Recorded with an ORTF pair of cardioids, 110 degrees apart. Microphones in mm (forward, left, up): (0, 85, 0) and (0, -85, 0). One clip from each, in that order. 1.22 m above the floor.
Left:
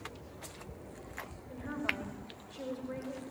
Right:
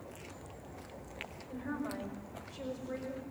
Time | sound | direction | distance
1.5 | a woman speaking | straight ahead | 5 m